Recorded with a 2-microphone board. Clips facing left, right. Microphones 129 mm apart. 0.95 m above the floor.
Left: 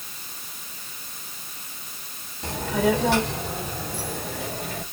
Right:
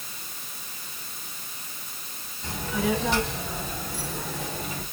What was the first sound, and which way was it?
A child speaking, 80° left.